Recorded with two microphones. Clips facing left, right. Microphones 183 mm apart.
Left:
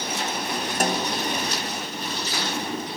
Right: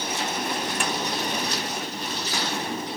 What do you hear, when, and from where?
0.8 s a snare drum: 40° left (ahead or behind)